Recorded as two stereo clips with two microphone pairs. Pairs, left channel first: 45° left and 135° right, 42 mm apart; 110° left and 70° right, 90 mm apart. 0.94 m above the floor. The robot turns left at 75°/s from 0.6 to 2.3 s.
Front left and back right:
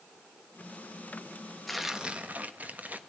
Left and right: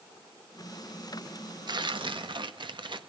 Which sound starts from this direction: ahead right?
Tearing paper, at 1.7 s.